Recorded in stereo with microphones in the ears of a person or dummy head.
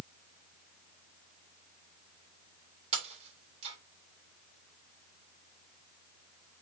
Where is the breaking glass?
30° right (ahead or behind), 3 m.